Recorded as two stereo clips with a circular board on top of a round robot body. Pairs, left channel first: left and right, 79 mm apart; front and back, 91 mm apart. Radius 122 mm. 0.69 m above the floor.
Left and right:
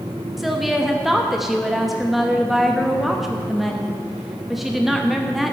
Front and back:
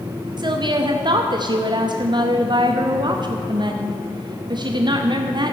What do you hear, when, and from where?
0.4 s a woman speaking: 175° right, 1.0 m